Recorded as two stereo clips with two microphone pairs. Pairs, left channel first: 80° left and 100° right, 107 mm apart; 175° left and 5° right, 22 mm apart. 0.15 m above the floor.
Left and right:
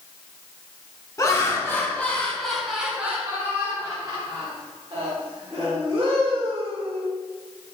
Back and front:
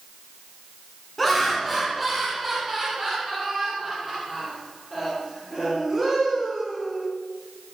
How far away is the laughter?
About 1.3 m.